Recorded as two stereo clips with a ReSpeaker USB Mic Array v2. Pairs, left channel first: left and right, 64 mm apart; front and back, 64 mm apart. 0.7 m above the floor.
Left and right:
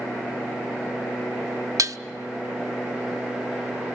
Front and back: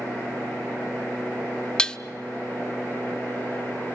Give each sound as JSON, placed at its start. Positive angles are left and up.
{"t": 1.8, "sound": "dishes clattering", "azimuth_deg": -75, "distance_m": 0.8}